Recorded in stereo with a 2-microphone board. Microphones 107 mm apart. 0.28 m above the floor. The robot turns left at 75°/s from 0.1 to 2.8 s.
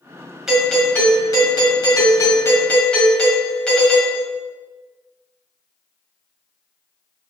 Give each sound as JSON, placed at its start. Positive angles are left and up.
{"t": 0.5, "sound": "a doorbell", "azimuth_deg": -175, "distance_m": 1.7}